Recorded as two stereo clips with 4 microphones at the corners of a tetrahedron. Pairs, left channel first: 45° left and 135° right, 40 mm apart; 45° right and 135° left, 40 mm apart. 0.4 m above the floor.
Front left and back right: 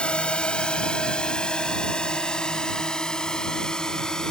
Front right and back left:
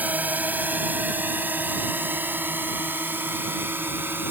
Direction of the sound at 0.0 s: 105° left.